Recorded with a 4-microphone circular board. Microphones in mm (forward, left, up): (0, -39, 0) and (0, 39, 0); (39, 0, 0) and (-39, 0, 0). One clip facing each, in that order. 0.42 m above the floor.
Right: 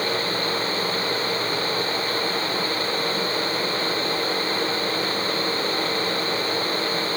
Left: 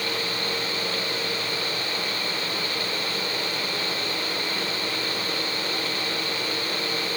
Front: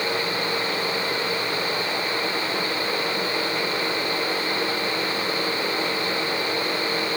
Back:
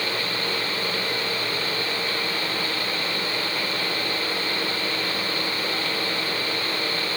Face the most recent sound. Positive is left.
No sound to turn to.